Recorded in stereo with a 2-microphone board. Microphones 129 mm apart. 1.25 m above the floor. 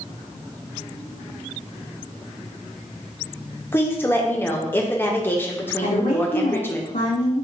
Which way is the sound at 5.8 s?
75° left (ahead or behind).